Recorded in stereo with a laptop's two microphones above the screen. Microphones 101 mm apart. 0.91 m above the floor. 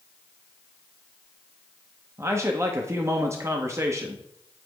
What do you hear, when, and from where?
2.2 s a man speaking: 25° right (ahead or behind), 0.8 m